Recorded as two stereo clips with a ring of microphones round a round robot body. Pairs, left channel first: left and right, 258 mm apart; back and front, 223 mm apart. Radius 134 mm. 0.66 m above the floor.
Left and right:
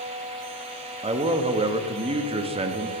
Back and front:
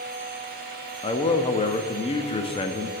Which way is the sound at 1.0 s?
135° right.